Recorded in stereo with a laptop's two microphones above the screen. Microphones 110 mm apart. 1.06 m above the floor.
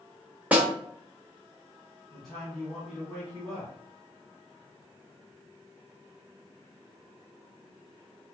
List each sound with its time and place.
0.5 s a snare drum: 15° right (ahead or behind), 0.9 m
2.1 s a man speaking: centre (ahead or behind), 1.5 m